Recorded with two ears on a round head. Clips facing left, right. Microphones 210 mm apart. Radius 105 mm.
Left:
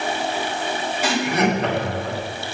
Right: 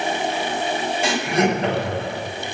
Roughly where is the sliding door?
I don't hear a sliding door.